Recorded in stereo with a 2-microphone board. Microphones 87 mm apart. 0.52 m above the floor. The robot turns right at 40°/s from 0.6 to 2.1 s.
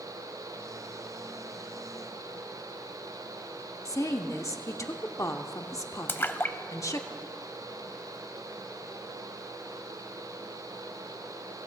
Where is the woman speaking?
40° left (ahead or behind), 0.9 m.